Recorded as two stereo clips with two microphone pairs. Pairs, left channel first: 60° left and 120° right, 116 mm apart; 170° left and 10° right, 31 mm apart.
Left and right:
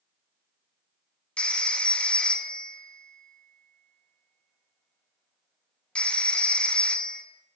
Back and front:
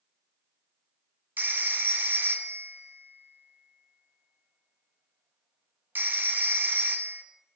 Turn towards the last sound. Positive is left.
turn(degrees=-20)